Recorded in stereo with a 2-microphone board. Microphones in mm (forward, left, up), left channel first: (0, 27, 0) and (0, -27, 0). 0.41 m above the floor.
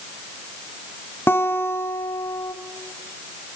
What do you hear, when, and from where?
1.3 s a guitar: 45° left (ahead or behind), 1.6 m